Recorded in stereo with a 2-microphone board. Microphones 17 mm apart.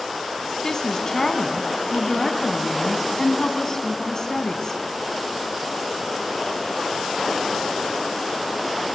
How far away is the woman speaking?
About 2 m.